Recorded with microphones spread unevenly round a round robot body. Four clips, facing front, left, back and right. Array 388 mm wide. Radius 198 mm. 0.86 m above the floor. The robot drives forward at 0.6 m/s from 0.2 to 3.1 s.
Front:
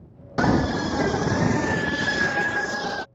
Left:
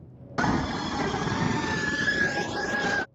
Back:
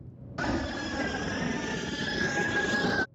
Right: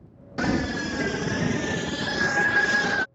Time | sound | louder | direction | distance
0.4 | a scream | right 1 dB, front 10 dB | 10° right | ?